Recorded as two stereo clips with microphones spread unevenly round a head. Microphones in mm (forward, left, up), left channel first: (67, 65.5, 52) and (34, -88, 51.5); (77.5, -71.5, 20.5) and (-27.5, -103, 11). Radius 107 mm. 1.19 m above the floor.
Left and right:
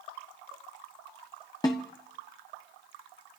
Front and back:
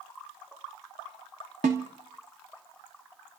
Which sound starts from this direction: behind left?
A snare drum, at 1.6 s.